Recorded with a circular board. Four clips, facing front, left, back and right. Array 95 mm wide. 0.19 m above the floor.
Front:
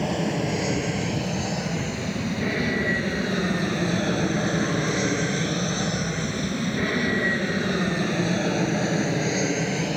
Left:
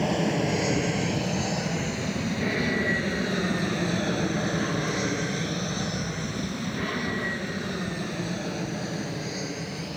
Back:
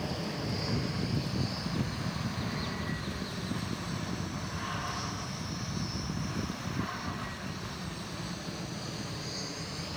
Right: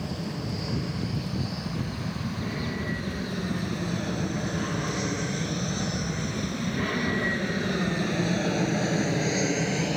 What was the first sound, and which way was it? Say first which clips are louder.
An aircraft: left 9 dB, front 11 dB; 50° left.